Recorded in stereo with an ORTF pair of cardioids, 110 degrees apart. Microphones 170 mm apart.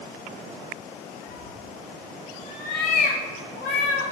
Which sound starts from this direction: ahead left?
A cat meowing, at 1.3 s.